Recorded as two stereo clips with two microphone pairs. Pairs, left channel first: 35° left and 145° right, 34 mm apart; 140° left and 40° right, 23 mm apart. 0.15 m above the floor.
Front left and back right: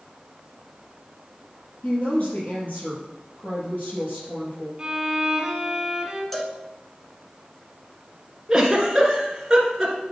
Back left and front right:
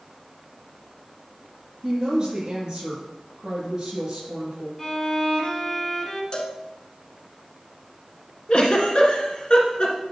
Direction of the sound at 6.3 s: 115° left.